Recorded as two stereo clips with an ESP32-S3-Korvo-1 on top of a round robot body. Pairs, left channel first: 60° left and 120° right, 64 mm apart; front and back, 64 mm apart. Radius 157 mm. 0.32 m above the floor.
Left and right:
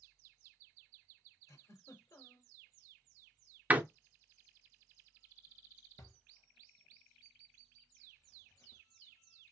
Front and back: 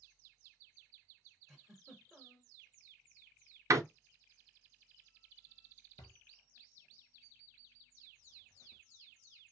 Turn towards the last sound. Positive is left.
turn(degrees=15)